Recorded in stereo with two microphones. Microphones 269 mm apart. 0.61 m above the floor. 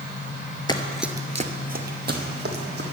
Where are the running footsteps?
20° left (ahead or behind), 0.7 m; by 2.8 s 40° right (ahead or behind), 2 m.